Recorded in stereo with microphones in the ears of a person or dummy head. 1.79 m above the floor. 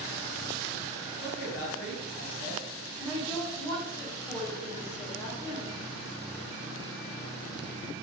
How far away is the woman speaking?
About 0.9 m.